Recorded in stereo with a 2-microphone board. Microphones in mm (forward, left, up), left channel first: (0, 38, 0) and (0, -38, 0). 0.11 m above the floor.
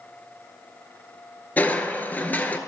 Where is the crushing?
25° left (ahead or behind), 0.7 m.